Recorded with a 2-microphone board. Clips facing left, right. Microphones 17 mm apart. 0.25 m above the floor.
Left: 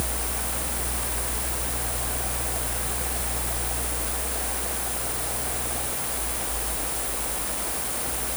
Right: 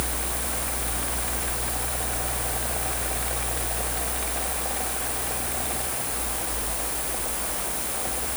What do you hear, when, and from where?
Only background noise.